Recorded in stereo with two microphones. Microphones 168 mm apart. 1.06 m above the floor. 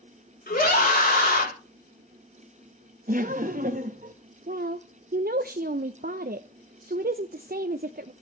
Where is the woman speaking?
60° right (ahead or behind), 0.5 m.